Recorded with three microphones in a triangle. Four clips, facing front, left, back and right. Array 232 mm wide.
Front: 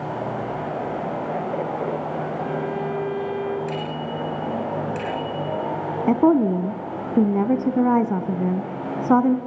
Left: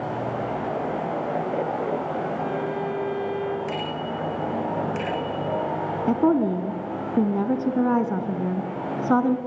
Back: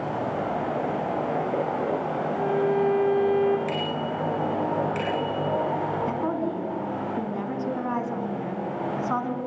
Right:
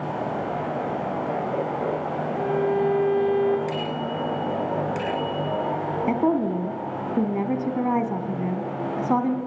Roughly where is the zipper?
No zipper in this recording.